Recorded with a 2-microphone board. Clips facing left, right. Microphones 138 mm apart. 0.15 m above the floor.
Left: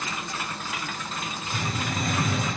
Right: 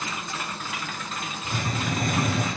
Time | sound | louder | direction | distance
1.4 | a hiss | right 3 dB | 60° right (ahead or behind) | 3.5 m